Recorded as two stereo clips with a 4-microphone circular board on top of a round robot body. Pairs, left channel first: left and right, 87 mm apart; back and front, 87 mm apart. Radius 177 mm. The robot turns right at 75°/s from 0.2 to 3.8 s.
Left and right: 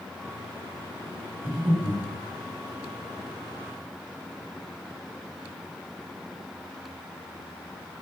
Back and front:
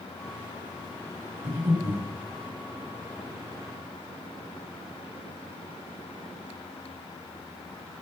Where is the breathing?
25° right, 3.5 m; by 2.0 s 20° left, 3.5 m.